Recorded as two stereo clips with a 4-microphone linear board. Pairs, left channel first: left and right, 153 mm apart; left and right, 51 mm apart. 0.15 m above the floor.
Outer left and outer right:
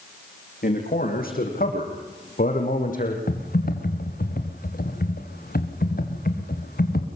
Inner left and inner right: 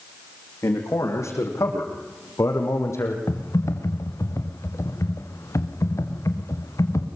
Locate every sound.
0.6 s a man speaking: 75° left (ahead or behind), 7.5 m; by 3.2 s 65° left (ahead or behind), 6 m
3.3 s typing on a keyboard: 75° left (ahead or behind), 3 m